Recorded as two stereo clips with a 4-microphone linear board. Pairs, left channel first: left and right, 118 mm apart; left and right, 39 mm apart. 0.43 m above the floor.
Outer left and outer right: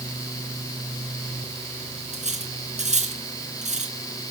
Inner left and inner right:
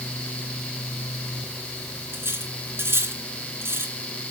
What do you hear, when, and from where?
2.1 s cutlery clinking: 80° right, 2.5 m